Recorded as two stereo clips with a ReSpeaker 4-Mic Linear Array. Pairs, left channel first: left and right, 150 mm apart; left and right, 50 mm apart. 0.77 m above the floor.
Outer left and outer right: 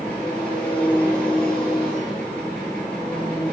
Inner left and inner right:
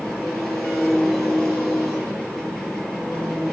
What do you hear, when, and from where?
0.0 s an engine running: 5° left (ahead or behind), 6.5 m